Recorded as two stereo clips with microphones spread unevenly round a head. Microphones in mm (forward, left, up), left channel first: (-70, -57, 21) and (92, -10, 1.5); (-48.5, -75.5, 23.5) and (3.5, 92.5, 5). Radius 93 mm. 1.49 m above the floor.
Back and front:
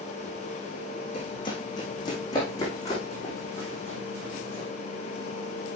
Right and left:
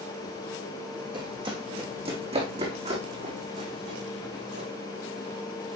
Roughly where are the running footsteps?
Behind left.